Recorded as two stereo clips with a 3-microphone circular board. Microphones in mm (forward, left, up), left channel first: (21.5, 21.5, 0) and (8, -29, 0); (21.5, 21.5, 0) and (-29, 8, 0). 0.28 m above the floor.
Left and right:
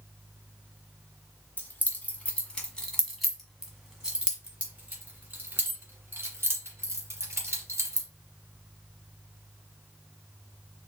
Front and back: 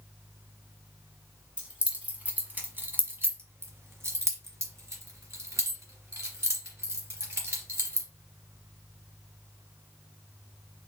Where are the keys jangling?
125° left, 1.5 m; by 8.1 s 135° right, 3 m.